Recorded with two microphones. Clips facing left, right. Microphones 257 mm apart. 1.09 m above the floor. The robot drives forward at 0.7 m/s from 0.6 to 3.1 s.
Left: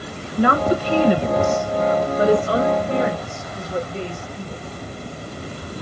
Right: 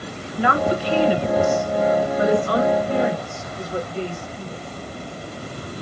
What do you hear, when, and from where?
0.4 s a woman speaking: 50° left (ahead or behind), 0.8 m; by 4.6 s 25° left (ahead or behind), 1.5 m